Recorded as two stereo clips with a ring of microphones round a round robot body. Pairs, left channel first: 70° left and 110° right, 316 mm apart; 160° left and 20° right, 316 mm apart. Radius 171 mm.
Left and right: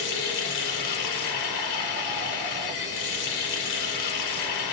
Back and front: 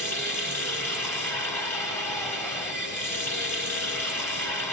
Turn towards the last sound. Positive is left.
turn(degrees=75)